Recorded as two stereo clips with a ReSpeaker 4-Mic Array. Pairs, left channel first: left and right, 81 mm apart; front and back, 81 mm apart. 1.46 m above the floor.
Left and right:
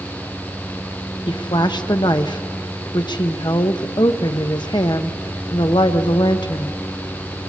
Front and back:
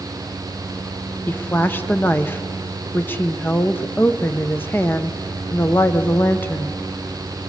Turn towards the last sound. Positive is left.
turn(degrees=65)